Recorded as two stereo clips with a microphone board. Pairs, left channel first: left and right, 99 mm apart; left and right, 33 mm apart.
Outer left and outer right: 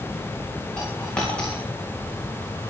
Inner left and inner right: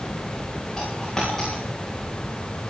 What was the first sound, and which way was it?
A dropped coin, 10° left (ahead or behind).